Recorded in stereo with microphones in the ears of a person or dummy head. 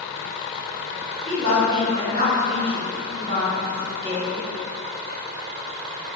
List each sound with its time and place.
1.3 s a woman speaking: 30° right (ahead or behind), 1.0 m